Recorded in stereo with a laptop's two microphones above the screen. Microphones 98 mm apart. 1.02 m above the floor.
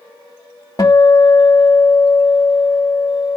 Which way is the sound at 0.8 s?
40° left (ahead or behind).